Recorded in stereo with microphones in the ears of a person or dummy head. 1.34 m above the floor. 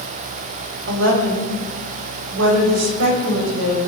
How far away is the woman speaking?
About 5 m.